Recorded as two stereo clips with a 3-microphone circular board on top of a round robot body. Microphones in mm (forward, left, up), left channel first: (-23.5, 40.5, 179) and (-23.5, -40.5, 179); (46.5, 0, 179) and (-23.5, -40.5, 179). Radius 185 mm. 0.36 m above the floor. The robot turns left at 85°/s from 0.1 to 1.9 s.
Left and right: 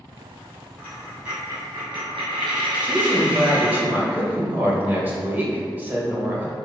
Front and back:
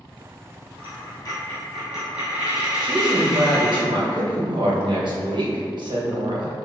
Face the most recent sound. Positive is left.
turn(degrees=-155)